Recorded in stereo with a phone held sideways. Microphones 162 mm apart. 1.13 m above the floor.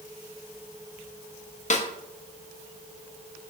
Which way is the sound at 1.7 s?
45° left (ahead or behind).